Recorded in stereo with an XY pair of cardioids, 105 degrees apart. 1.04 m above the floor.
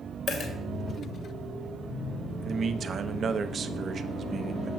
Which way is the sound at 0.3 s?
65° left.